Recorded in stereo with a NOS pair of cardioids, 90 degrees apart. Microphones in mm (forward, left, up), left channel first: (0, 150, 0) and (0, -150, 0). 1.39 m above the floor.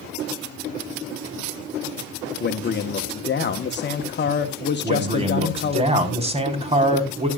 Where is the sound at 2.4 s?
35° left, 1.3 m.